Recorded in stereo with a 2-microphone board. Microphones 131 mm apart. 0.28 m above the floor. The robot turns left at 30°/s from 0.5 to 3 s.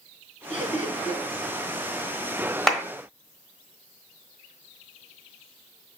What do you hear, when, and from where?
0.5 s laughter: 60° left (ahead or behind), 2 m
2.7 s a clap: centre (ahead or behind), 1.1 m; by 2.8 s 5° left (ahead or behind), 1.1 m